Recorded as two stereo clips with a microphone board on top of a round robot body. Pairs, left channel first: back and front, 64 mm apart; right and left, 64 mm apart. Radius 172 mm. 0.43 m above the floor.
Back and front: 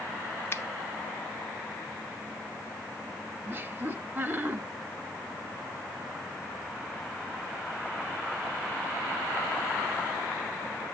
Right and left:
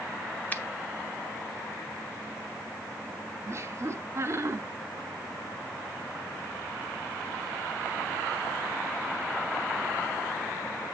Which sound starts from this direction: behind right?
A finger snap, at 0.5 s.